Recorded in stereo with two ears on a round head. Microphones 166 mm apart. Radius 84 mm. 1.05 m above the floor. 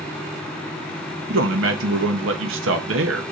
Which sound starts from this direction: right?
A man speaking, at 1.3 s.